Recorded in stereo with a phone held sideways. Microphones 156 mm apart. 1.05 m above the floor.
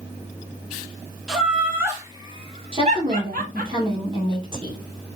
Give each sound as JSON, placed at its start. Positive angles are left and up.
{"t": 1.3, "sound": "laughter", "side_deg": -5, "distance_m": 1.7}
{"t": 2.7, "sound": "a woman speaking", "side_deg": -35, "distance_m": 1.7}